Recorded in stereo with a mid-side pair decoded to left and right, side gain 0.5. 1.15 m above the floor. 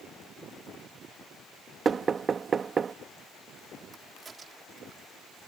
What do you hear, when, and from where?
1.9 s knocking: 40° right
3.9 s a crack: 35° right